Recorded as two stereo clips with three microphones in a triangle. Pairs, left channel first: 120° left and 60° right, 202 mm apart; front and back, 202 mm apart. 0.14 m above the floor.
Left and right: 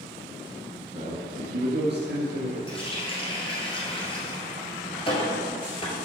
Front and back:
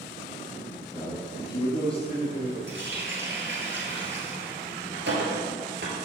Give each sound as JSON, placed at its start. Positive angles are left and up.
{"t": 0.9, "sound": "a man speaking", "azimuth_deg": -60, "distance_m": 1.2}
{"t": 2.7, "sound": "a running tap", "azimuth_deg": 180, "distance_m": 1.6}